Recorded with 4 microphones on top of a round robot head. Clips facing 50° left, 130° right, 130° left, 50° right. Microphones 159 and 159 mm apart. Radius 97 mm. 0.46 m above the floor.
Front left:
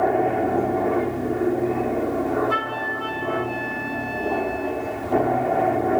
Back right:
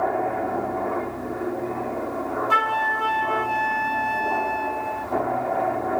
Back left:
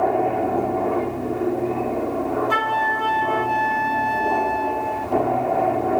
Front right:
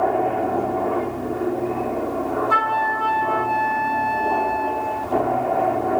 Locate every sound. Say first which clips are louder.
0.0 s an aircraft: front left 4 dB, even; 50° left
2.5 s a flute: back right 2 dB, even; 165° right